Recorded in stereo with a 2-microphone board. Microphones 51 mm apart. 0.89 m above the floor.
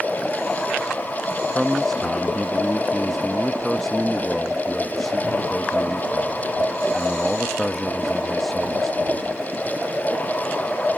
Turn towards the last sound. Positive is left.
turn(degrees=5)  # may be behind; listen again after turning